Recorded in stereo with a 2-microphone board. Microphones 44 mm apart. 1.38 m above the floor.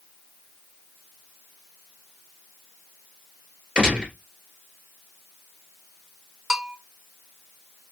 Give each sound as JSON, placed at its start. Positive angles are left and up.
{"t": 3.8, "sound": "a gunshot", "side_deg": -15, "distance_m": 1.8}
{"t": 6.5, "sound": "a bell", "side_deg": -10, "distance_m": 0.6}